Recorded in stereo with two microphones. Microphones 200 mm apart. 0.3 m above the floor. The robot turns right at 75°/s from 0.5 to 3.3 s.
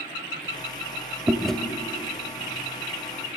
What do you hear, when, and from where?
1.3 s chewing: 10° right (ahead or behind), 0.6 m; by 1.6 s 5° left (ahead or behind), 0.6 m